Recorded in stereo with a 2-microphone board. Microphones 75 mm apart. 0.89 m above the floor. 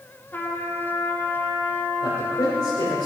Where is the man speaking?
70° left (ahead or behind), 3.5 m.